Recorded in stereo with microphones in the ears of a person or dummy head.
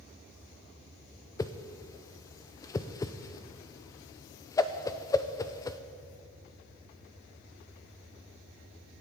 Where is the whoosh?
20° left (ahead or behind), 0.6 m.